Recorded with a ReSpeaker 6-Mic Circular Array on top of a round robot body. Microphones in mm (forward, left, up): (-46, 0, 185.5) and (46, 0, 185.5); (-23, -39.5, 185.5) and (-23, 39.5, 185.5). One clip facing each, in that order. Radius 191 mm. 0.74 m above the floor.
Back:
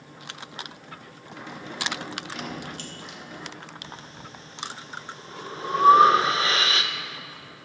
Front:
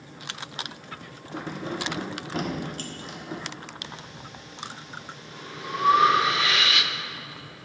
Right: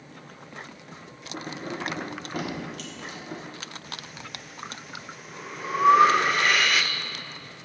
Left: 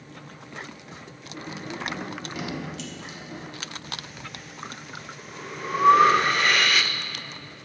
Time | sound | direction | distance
1.3 | keys jangling | 50° right | 1.1 m
3.8 | breathing | 175° right | 0.9 m